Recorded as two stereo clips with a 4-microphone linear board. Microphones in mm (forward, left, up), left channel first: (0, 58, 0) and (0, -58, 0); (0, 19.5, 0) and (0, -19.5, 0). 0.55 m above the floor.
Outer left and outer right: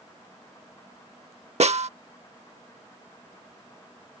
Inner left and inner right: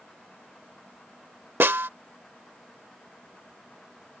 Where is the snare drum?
70° right (ahead or behind).